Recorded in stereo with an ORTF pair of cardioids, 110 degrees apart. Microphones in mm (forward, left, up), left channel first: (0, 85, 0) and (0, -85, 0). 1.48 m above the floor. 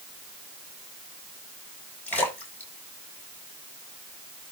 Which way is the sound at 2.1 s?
10° left.